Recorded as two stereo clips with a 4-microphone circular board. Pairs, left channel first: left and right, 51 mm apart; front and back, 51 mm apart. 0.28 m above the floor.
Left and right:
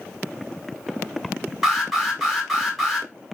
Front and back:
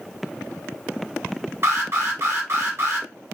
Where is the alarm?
175° right, 1.3 m.